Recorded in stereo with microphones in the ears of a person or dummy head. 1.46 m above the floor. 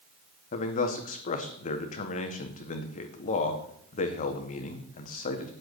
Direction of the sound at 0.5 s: 45° left (ahead or behind).